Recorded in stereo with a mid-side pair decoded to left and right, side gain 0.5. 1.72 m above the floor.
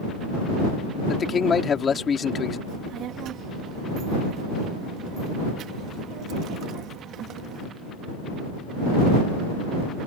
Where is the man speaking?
40° left.